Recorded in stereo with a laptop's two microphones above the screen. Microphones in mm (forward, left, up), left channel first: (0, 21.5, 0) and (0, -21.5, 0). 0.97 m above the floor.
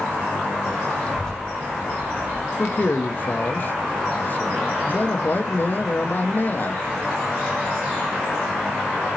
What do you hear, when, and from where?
1.0 s a child speaking: 25° left (ahead or behind), 1.2 m; by 2.5 s 85° right, 0.9 m
2.6 s a man speaking: 45° left (ahead or behind), 0.9 m